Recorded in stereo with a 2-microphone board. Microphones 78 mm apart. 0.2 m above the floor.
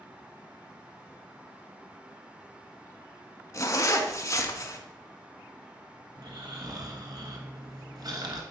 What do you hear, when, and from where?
3.5 s a zipper: 45° left (ahead or behind), 0.9 m
6.2 s snoring: 55° right (ahead or behind), 1.3 m